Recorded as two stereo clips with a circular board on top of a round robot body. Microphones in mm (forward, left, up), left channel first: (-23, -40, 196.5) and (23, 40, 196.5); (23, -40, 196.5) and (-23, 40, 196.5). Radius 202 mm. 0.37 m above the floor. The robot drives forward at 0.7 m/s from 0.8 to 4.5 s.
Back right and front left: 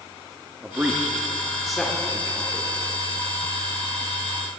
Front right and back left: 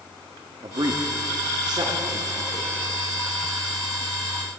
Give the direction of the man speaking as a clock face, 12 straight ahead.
8 o'clock.